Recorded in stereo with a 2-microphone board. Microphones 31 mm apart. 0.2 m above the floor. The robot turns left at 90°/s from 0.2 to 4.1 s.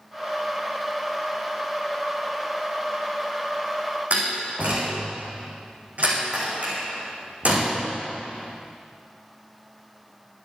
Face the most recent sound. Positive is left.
turn(degrees=-50)  # may be behind; listen again after turning